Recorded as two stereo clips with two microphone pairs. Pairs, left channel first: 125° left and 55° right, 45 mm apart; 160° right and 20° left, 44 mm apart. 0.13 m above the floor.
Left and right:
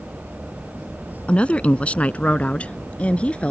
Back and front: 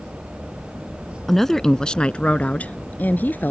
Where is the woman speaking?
120° left; by 3.5 s straight behind.